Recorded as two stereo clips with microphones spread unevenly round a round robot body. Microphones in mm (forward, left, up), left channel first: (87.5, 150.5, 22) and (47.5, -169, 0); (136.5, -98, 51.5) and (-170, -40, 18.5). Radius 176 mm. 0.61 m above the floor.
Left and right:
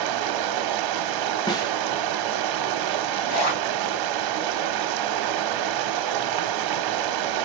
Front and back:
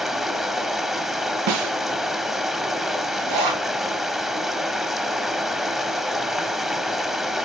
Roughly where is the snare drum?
Behind.